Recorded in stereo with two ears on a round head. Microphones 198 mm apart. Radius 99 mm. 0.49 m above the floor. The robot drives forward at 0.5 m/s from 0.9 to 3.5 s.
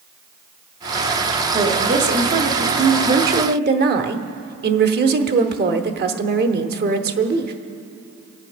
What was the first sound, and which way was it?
A woman speaking, 30° right (ahead or behind).